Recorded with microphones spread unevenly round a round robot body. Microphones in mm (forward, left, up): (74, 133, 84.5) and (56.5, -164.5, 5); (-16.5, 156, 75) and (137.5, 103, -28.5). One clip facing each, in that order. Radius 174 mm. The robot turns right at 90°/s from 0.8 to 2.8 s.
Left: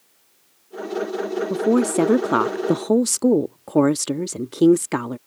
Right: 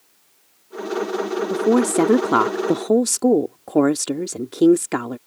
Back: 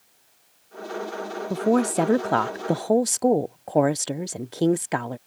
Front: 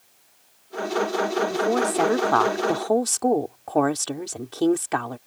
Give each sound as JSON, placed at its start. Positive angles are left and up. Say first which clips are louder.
{"t": 1.5, "sound": "a woman speaking", "louder": "right 1 dB, back 1 dB", "azimuth_deg": -150}